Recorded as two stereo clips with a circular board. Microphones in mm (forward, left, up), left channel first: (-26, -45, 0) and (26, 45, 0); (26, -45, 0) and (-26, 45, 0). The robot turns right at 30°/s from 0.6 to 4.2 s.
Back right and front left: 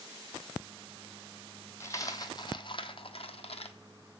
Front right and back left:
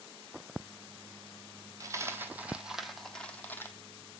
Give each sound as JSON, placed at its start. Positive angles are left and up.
{"t": 1.8, "sound": "a dropped coin", "azimuth_deg": 175, "distance_m": 0.6}